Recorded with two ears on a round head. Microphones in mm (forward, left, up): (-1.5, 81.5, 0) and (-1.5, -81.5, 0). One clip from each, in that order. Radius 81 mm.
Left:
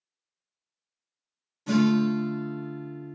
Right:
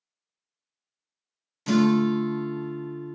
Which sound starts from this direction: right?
A guitar, at 1.7 s.